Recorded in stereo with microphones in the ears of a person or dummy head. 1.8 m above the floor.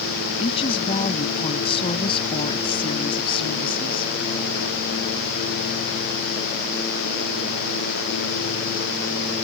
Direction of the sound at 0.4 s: 25° left (ahead or behind).